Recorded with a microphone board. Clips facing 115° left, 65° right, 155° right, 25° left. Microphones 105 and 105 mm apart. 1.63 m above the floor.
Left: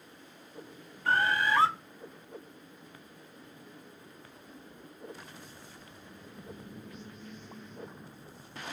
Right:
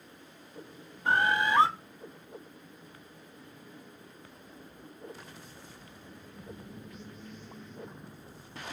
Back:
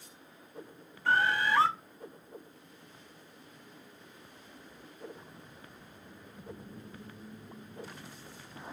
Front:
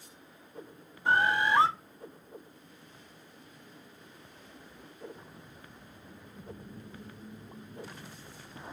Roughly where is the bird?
Ahead right.